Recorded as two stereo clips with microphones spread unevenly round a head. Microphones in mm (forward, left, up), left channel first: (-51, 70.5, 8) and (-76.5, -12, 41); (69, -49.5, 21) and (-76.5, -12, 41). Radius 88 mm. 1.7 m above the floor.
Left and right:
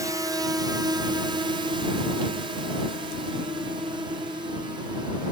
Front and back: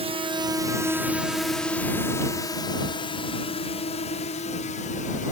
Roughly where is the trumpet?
I don't hear a trumpet.